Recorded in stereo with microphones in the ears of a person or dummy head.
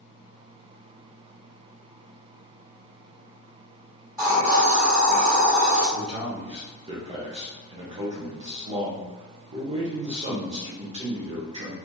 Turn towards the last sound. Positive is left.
turn(degrees=-35)  # may be behind; listen again after turning